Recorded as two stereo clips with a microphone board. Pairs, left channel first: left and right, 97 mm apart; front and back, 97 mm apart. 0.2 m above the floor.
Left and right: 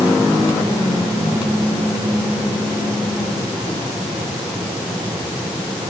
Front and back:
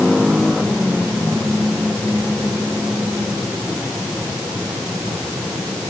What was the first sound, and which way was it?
Only background noise.